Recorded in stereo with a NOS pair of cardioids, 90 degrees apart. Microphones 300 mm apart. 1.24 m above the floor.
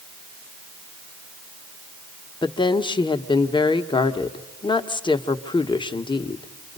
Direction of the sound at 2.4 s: 15° left.